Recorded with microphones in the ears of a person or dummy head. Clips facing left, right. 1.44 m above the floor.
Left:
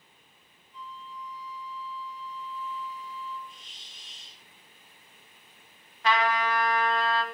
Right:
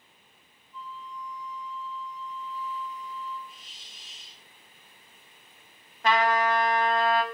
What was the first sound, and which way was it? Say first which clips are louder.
A flute: right 2 dB; 65° left (ahead or behind).